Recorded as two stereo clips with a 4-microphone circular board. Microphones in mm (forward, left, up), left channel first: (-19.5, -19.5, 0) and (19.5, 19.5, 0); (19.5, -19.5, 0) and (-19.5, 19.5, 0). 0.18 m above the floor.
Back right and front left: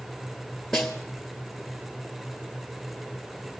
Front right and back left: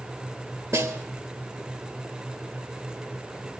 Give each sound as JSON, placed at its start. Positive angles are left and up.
{"t": 0.7, "sound": "a snare drum", "azimuth_deg": 140, "distance_m": 3.0}